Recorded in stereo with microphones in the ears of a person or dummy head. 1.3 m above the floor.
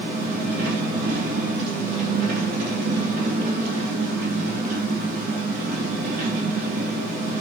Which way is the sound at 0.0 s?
40° right (ahead or behind).